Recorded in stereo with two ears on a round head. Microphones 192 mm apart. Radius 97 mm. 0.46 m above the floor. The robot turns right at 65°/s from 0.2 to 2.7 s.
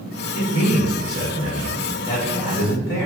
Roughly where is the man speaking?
Right.